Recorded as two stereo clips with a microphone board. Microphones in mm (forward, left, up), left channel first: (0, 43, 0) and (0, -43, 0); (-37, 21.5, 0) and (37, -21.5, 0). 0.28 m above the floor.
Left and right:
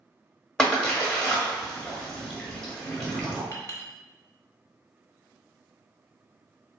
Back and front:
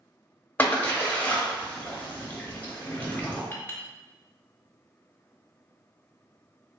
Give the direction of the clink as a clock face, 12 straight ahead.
9 o'clock.